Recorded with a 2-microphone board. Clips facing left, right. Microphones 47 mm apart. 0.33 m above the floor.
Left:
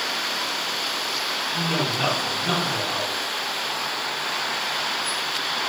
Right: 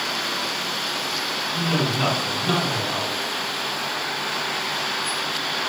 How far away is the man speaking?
About 1.2 m.